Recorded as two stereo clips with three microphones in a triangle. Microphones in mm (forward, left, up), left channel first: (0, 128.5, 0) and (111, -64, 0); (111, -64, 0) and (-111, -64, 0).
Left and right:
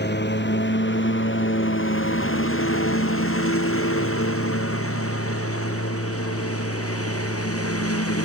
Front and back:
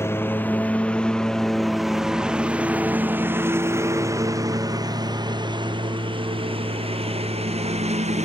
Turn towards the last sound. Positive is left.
turn(degrees=120)